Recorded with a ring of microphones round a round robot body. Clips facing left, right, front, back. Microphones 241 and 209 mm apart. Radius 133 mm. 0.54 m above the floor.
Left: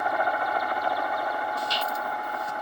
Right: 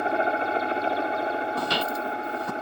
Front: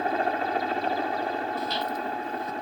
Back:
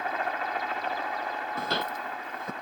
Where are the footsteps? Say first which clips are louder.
Right 4 dB, front 3 dB; 125° right.